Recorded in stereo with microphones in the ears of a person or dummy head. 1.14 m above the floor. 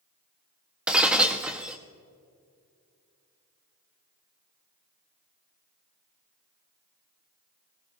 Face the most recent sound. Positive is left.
turn(degrees=-5)  # may be behind; listen again after turning